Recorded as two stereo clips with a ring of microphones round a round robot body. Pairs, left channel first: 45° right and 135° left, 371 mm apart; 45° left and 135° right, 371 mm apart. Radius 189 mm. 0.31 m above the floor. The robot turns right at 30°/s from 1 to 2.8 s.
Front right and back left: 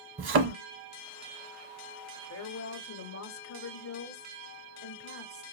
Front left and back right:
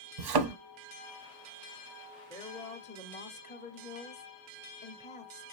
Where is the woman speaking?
30° right, 1.0 m; by 5.4 s 15° right, 1.0 m.